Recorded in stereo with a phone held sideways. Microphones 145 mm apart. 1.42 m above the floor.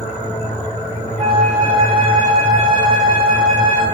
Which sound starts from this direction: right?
A flute, at 1.2 s.